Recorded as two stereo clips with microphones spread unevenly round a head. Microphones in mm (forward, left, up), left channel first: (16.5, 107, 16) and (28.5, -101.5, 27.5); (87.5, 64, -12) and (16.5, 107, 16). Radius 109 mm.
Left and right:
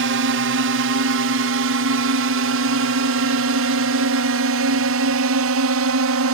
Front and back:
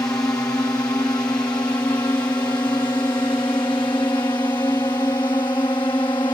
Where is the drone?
105° right; by 6.3 s 95° right.